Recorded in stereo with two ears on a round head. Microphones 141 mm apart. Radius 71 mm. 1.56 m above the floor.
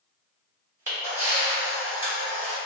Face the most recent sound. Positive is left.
turn(degrees=-15)  # may be behind; listen again after turning